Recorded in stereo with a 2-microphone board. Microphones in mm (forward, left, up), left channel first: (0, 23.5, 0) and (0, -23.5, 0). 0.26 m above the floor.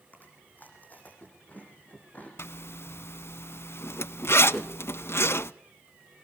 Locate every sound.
0.1 s chewing: 35° left (ahead or behind), 7 m
2.4 s a zipper: 60° left (ahead or behind), 0.5 m
4.5 s a whoosh: 10° left (ahead or behind), 1.8 m